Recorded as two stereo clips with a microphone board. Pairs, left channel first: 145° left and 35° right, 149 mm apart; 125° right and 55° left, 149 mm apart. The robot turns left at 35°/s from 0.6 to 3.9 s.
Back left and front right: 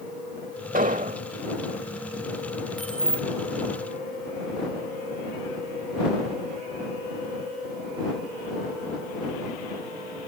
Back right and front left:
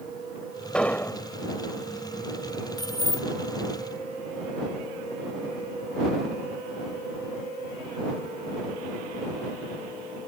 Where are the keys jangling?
130° right; by 3.3 s 145° right.